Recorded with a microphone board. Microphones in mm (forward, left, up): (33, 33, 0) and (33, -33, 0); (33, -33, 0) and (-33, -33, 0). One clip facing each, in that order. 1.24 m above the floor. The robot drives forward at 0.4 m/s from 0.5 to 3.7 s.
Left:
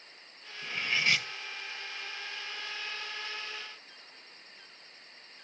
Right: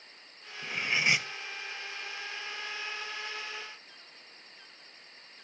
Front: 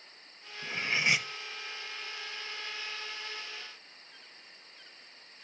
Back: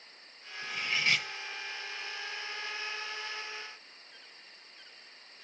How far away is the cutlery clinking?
About 0.6 m.